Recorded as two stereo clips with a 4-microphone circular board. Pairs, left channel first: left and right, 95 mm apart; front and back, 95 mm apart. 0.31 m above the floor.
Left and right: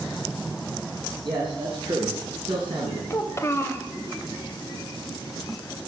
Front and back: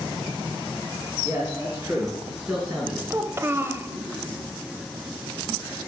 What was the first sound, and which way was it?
A man speaking, 120° right.